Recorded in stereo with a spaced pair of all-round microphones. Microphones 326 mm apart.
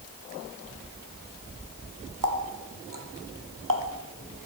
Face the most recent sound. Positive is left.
turn(degrees=-75)  # may be behind; listen again after turning